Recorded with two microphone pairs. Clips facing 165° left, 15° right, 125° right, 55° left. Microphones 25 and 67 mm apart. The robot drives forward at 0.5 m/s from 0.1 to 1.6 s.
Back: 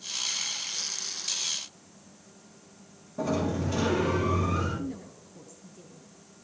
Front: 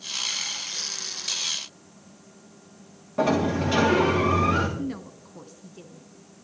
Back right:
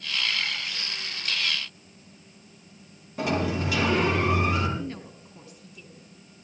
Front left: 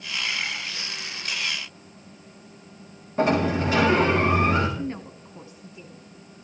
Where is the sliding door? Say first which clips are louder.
Front 6 dB, front left 5 dB; straight ahead, 6.5 m.